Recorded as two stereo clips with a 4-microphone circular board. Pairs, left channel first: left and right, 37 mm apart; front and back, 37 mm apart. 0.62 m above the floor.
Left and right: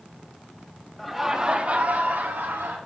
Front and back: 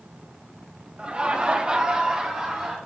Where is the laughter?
170° left, 0.6 m; by 2.8 s 105° right, 1.4 m.